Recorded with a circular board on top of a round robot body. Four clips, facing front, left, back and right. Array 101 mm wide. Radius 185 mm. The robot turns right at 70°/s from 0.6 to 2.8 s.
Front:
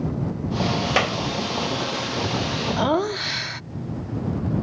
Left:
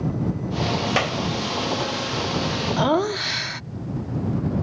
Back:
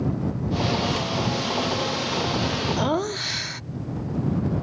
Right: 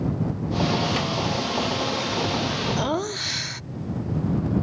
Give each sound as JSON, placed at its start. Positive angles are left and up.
{"t": 1.0, "sound": "a clap", "azimuth_deg": 30}
{"t": 2.8, "sound": "laughter", "azimuth_deg": 55}